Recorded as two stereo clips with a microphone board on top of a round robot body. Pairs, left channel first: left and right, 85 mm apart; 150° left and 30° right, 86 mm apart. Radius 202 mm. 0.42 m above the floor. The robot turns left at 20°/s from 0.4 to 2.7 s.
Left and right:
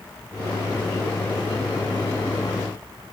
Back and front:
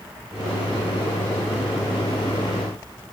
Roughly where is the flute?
I don't hear a flute.